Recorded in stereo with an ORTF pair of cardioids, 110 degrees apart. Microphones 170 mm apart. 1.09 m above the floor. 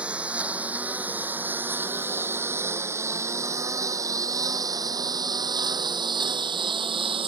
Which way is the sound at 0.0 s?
5° right.